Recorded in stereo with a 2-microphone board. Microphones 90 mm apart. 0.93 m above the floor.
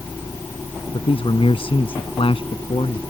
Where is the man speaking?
85° left.